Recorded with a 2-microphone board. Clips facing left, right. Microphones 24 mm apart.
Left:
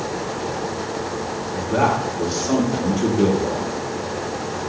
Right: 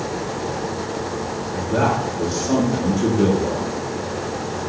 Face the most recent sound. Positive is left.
turn(degrees=25)  # may be behind; listen again after turning